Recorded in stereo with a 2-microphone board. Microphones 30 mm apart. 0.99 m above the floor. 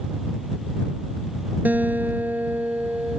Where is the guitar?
75° right (ahead or behind).